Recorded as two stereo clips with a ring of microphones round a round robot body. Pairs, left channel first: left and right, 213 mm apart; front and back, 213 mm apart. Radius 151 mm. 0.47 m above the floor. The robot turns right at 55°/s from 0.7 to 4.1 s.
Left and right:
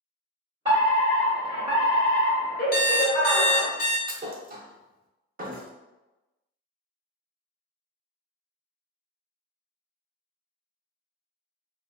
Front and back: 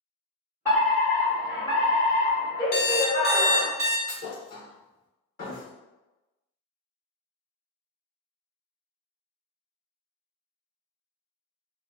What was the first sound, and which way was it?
A fire alarm, 70° right.